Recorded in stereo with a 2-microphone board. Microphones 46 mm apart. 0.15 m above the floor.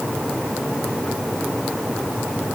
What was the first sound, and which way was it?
Only background noise.